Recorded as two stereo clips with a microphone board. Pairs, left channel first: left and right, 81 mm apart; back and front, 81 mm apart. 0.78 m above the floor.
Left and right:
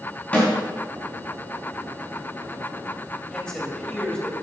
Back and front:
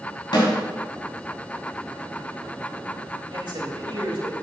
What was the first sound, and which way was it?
A snare drum, 160° left.